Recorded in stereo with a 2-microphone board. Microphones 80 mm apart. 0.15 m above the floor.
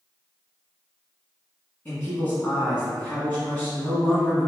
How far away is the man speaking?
About 1.1 m.